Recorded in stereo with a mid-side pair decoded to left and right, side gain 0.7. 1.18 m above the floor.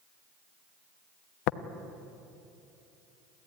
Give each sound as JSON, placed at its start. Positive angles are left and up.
{"t": 1.5, "sound": "tapping", "azimuth_deg": 65, "distance_m": 1.0}